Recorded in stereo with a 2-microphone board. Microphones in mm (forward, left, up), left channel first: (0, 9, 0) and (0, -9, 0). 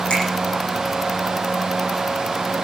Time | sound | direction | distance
0.1 | a finger snap | 65° left (ahead or behind) | 9.5 m